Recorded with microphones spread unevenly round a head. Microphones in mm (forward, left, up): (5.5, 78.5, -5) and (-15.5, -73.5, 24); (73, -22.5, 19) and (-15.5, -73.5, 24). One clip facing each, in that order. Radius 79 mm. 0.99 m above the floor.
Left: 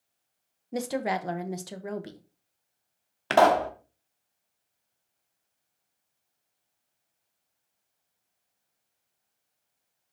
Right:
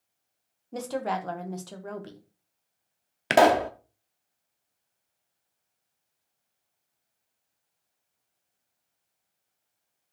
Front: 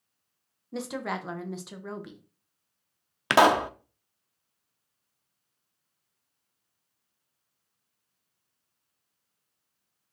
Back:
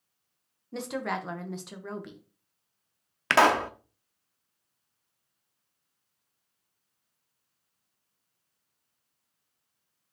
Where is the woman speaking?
110° left, 0.8 m.